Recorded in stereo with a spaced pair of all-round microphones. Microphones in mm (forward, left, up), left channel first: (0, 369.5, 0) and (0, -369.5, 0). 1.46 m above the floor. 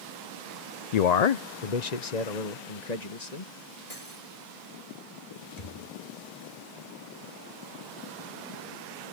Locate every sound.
0.9 s a man speaking: 60° left (ahead or behind); by 3.5 s 65° left (ahead or behind)
3.9 s cutlery clinking: 50° left (ahead or behind)
5.6 s a thud: 60° left (ahead or behind)